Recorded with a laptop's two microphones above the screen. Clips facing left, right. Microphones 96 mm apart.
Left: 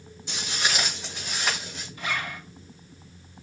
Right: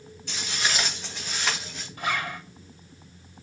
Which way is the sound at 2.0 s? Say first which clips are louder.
Right 3 dB; 50° right (ahead or behind).